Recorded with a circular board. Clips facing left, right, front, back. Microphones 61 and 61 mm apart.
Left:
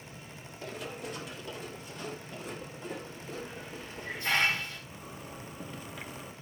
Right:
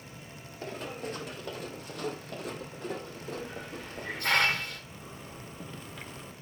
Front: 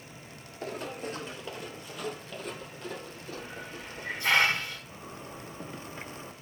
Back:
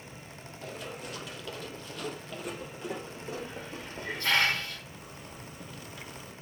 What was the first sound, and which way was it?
Running footsteps, 40° right.